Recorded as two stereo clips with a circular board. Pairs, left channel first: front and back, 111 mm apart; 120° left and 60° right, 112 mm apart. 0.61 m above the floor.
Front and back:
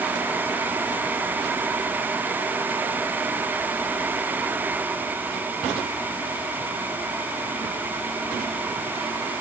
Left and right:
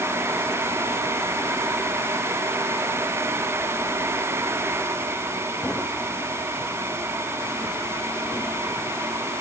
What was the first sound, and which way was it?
Only background noise.